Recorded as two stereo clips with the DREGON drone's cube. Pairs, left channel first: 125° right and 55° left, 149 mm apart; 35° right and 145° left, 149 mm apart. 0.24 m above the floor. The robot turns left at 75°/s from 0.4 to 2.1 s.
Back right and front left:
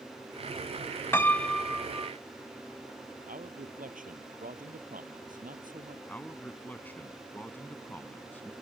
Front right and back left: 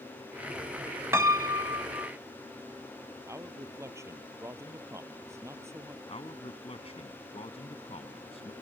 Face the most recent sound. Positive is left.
turn(degrees=-50)